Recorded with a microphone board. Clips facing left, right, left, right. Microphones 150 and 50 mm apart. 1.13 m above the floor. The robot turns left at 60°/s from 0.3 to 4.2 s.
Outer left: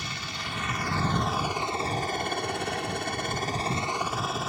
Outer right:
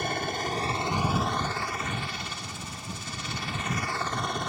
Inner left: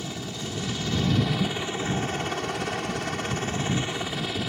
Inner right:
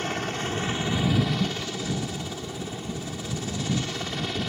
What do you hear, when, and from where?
0.0 s a helicopter: 125° right; by 4.5 s 5° left